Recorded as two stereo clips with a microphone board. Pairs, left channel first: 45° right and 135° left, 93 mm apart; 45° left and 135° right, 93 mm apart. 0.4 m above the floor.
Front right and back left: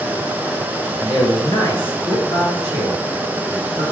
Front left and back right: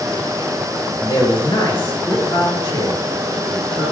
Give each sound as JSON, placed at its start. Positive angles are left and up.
{"t": 1.0, "sound": "a man speaking", "azimuth_deg": -10, "distance_m": 4.5}